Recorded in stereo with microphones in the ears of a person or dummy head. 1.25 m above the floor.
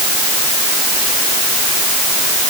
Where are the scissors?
No scissors in this recording.